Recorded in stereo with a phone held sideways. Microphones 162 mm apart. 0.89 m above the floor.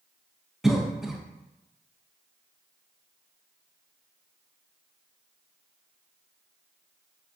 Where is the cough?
5° right (ahead or behind), 0.5 m.